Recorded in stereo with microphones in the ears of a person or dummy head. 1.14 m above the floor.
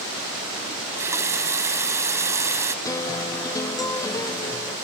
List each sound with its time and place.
0.7 s a running tap: 15° right (ahead or behind)
2.9 s a guitar: 15° left (ahead or behind)